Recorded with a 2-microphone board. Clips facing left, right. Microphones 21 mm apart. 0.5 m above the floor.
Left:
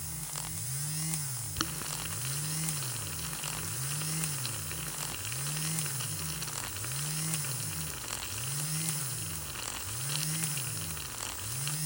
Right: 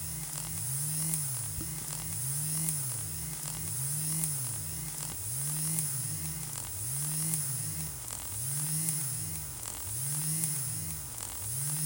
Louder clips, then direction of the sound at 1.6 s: Left 6 dB; 65° left (ahead or behind).